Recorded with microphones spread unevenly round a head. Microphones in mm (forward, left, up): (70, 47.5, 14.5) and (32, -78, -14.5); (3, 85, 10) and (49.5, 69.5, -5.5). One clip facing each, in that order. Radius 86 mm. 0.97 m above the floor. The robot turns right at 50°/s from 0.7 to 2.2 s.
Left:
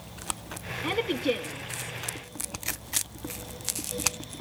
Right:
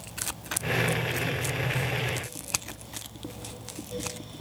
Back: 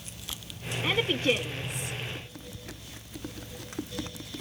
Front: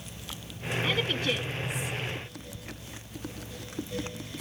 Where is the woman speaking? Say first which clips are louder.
Left 3 dB, back 4 dB; 80° left, 1.0 m; by 1.9 s 135° left, 1.0 m.